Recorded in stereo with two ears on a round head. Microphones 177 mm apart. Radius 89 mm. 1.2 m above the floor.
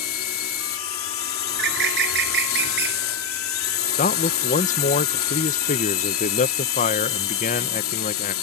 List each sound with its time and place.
0.0 s a drone: 80° left
1.5 s a bird: 55° right (ahead or behind)
4.0 s a man speaking: 40° left (ahead or behind)